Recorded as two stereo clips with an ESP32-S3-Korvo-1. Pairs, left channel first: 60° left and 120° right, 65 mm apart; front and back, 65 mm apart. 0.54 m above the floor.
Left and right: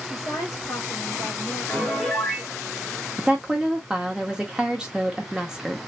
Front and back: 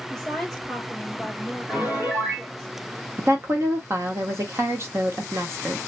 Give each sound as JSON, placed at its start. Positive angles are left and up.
{"t": 0.1, "sound": "a woman speaking", "azimuth_deg": 90, "distance_m": 2.5}
{"t": 1.7, "sound": "a piano", "azimuth_deg": 135, "distance_m": 2.0}
{"t": 3.2, "sound": "a woman speaking", "azimuth_deg": 170, "distance_m": 1.1}